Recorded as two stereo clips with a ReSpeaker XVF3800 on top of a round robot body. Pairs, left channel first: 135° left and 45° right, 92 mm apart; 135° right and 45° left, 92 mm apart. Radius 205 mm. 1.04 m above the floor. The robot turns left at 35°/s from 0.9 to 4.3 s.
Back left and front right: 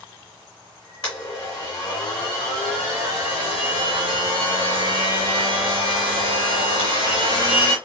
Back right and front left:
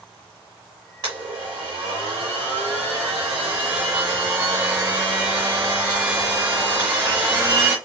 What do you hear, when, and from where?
1.0 s a blender: 90° left, 1.0 m; by 7.8 s 25° right, 1.0 m